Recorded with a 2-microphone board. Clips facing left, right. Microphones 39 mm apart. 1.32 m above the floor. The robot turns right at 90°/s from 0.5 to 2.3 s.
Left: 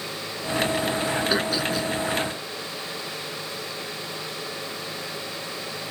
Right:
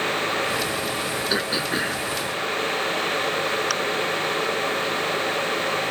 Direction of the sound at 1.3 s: Centre (ahead or behind).